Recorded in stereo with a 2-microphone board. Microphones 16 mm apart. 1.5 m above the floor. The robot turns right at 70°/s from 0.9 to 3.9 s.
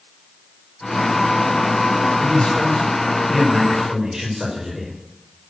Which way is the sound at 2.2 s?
80° left.